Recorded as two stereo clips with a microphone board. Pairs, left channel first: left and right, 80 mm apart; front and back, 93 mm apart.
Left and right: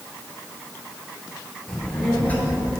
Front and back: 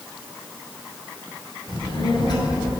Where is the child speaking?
5° left, 2.5 m; by 2.7 s 35° left, 1.9 m.